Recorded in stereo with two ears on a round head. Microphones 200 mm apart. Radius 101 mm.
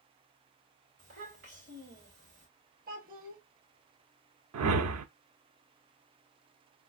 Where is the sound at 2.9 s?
35° right (ahead or behind), 1.3 m.